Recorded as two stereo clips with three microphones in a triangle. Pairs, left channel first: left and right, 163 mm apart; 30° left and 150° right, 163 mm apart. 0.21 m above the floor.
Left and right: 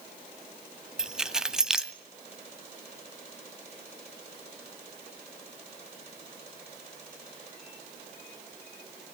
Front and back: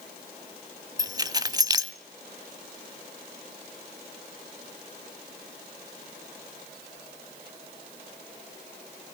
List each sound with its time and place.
1.0 s keys jangling: 170° right, 0.7 m